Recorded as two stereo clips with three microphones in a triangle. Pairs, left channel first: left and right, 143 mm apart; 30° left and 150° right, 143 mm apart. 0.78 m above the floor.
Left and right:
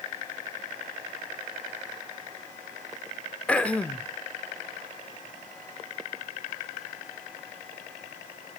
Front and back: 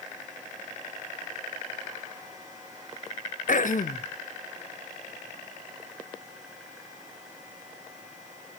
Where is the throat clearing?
10° left, 0.6 m.